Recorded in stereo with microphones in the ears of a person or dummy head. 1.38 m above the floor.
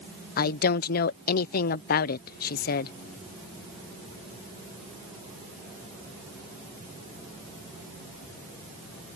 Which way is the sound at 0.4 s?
45° left (ahead or behind).